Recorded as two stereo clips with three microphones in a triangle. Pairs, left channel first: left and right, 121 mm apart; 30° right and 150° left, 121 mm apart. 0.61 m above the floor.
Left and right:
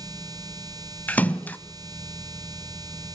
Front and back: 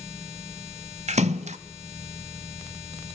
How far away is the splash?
About 0.9 m.